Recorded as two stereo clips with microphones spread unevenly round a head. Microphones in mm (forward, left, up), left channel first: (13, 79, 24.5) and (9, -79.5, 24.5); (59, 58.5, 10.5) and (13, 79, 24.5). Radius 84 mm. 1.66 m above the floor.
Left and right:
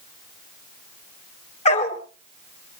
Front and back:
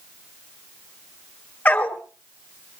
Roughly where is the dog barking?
Ahead left.